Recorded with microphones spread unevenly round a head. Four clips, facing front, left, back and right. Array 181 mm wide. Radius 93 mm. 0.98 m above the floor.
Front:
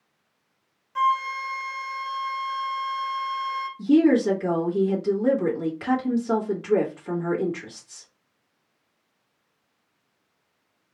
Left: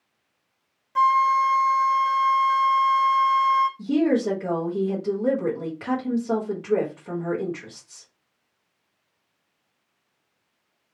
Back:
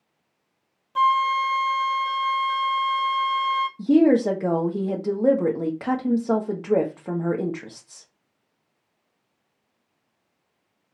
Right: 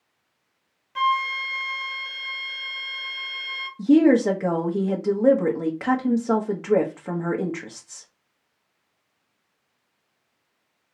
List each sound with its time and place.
0.9 s a flute: 155° left, 0.6 m
3.8 s a woman speaking: 140° right, 1.4 m